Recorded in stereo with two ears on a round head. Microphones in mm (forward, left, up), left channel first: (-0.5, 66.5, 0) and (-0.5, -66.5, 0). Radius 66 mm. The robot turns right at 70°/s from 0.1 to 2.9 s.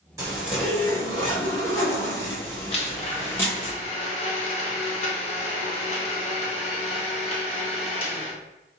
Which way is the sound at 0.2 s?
30° right.